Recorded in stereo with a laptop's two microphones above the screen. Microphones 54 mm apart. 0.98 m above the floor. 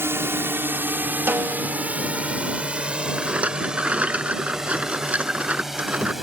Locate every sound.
0.0 s a drone: 50° right (ahead or behind); by 6.2 s 5° right (ahead or behind)
1.3 s a snare drum: 50° right (ahead or behind)
3.2 s a rattle: 25° right (ahead or behind)